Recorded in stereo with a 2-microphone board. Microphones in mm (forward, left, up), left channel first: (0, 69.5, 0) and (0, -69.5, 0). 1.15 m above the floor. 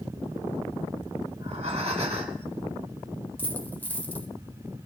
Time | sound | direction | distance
1.3 | breathing | 50° right (ahead or behind) | 1.7 m
3.4 | a dropped coin | 15° left (ahead or behind) | 1.4 m